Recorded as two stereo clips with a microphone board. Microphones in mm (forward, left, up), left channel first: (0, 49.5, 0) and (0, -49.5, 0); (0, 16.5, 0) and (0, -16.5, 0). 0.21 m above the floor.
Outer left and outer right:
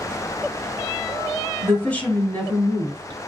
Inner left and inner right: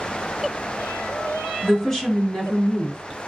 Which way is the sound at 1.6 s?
15° left (ahead or behind).